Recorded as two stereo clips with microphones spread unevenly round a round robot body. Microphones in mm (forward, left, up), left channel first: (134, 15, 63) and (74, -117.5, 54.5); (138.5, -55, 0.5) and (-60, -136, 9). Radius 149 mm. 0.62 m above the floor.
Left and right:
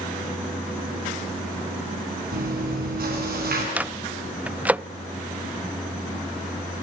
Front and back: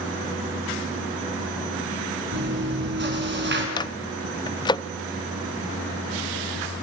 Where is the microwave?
40° right, 0.6 m.